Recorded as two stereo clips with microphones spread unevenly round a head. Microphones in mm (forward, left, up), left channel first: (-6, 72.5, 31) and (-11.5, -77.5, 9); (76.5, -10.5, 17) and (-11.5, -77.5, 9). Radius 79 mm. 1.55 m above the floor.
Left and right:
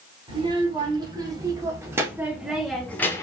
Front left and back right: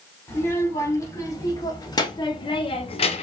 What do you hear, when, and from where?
0.3 s a child speaking: 30° right, 2.5 m; by 3.2 s 20° left, 1.0 m